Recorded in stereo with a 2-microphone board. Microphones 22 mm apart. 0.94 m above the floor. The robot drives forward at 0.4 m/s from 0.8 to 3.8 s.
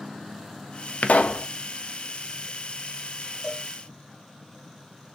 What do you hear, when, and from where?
1.0 s a pop: 70° left (ahead or behind), 0.5 m; by 1.5 s 75° left (ahead or behind), 0.5 m
3.4 s a cowbell: 15° right (ahead or behind), 1.5 m